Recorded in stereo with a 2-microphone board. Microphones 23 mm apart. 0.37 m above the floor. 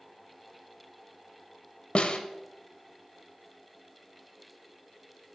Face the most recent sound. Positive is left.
turn(degrees=60)  # may be behind; listen again after turning